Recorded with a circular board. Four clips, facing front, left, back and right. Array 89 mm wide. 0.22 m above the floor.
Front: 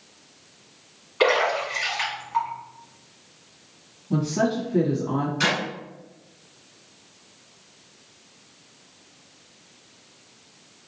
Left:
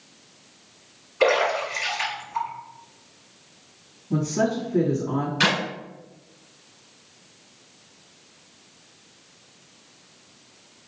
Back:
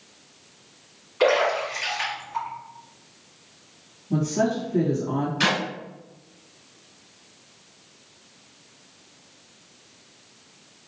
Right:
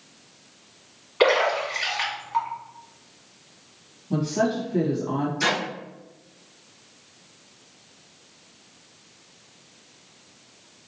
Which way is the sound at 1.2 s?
65° right.